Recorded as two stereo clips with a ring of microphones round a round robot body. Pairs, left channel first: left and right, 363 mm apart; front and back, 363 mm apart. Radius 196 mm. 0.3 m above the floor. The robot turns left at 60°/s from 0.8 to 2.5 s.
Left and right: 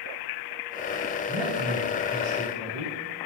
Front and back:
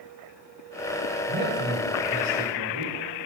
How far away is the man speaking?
About 3.5 m.